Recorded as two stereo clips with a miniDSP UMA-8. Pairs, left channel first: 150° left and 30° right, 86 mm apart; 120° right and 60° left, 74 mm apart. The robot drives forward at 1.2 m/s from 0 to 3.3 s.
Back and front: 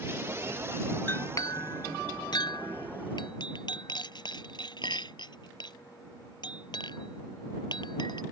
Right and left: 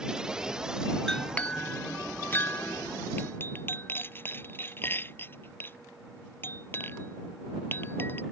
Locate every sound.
1.1 s a clink: 165° left; by 8.2 s straight behind